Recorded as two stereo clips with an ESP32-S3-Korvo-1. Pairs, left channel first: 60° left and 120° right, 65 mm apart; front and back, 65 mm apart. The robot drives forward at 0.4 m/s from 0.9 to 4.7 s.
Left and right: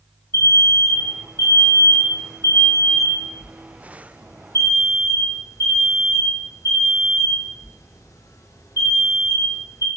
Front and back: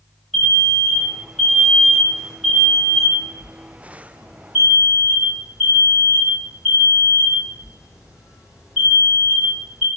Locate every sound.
0.3 s an alarm: 90° left, 5 m; by 9.9 s 105° left, 5.5 m